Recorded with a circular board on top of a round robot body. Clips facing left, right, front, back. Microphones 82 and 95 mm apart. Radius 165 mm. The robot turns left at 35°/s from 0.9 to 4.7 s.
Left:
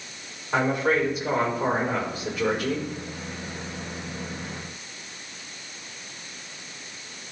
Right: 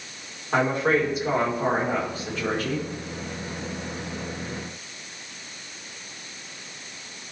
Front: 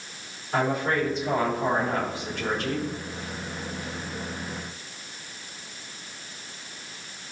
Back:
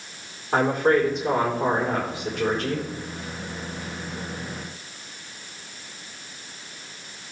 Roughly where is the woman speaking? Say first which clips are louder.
Right 1 dB, back 5 dB; behind right.